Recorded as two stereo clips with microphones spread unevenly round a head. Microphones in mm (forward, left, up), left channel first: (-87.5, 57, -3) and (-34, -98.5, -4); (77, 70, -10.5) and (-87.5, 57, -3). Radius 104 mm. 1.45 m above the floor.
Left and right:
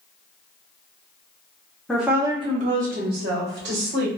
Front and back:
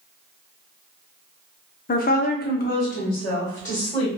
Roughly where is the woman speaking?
Ahead left.